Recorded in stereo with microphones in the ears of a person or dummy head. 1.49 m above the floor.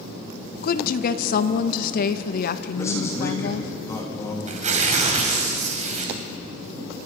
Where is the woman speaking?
55° left (ahead or behind), 1.1 m.